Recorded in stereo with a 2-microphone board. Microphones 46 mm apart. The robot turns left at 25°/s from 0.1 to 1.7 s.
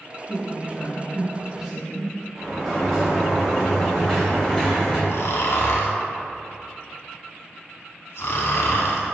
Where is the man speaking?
135° right, 2.0 m; by 2.2 s 170° right, 2.0 m.